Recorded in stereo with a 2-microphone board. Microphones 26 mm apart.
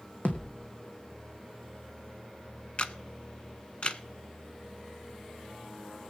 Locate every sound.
0.2 s a thud: 80° left, 1.7 m
2.8 s a camera shutter: 50° left (ahead or behind), 0.7 m